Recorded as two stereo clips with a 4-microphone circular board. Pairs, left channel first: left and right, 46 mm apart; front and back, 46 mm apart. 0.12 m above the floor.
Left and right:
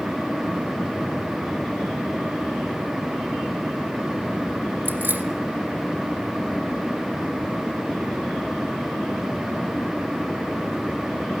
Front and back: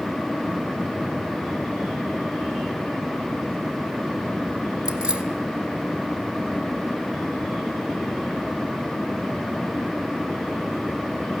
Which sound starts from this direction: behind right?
Keys jangling, at 4.8 s.